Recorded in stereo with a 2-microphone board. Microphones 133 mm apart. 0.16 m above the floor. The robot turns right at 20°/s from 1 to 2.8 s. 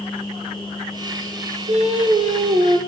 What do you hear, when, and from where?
1.7 s singing: 60° right (ahead or behind), 2.5 m; by 2.8 s 40° right (ahead or behind), 2.5 m